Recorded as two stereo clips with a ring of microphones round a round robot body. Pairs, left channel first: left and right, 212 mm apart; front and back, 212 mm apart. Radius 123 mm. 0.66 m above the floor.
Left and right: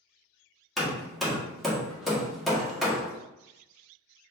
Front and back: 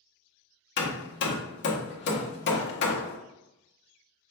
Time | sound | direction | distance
0.8 | hammering | straight ahead | 1.2 m